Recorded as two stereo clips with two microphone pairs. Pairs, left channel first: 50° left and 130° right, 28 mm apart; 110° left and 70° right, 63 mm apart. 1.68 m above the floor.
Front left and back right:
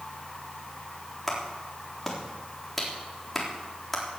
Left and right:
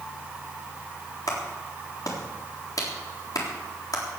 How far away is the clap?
About 3.5 m.